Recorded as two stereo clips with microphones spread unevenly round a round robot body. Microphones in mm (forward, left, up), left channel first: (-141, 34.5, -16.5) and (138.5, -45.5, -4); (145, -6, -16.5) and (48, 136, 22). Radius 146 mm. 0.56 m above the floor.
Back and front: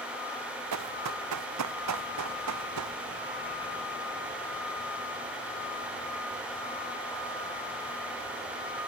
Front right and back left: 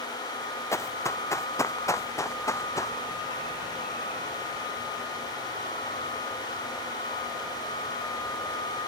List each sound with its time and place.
0.7 s running footsteps: 20° left